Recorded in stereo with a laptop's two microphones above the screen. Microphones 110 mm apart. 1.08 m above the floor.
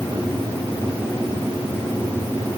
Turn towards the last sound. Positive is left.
No sound to turn to.